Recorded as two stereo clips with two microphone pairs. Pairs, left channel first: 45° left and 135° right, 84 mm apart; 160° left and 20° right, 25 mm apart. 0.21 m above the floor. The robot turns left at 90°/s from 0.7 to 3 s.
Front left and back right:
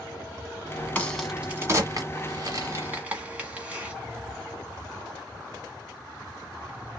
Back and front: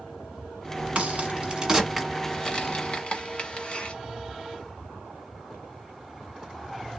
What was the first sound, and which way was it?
A crack, 20° right.